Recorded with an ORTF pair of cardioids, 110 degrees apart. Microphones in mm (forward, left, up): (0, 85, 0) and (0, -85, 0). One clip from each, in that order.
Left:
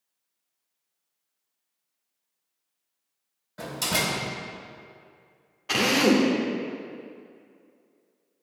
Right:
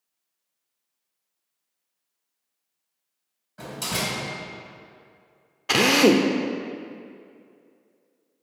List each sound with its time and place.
3.6 s a door slam: 25° left, 1.9 m
5.7 s a drill: 25° right, 0.7 m